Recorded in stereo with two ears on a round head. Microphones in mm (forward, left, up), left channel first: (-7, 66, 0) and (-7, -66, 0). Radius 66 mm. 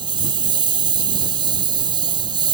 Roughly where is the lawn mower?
Right.